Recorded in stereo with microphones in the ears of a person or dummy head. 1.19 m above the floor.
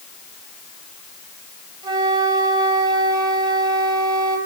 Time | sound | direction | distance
1.8 | a flute | 15° right (ahead or behind) | 3 m